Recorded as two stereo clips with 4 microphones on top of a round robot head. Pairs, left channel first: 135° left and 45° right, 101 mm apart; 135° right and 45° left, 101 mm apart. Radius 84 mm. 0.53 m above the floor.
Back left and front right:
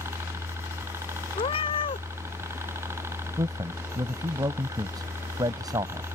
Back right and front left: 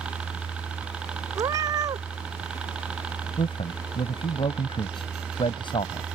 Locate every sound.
0.0 s a helicopter: 25° right
1.4 s a cat meowing: 100° left
3.4 s a man speaking: 95° right